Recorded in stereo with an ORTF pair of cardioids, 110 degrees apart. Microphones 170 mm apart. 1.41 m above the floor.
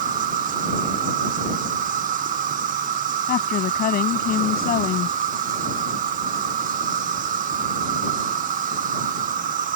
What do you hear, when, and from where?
0.0 s an insect: 55° right
3.3 s a woman speaking: 60° left